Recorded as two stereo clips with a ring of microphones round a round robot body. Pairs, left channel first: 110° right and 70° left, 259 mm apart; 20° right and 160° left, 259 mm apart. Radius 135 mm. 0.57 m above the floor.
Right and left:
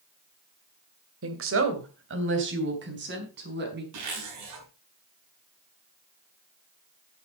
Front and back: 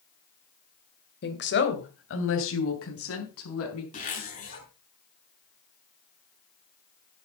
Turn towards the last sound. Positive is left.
turn(degrees=40)